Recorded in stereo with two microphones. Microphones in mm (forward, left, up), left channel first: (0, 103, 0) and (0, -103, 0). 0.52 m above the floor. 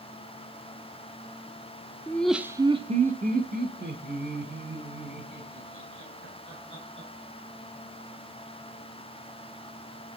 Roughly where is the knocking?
I don't hear knocking.